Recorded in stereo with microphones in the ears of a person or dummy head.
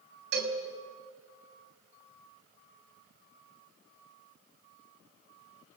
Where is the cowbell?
55° right (ahead or behind), 3 m.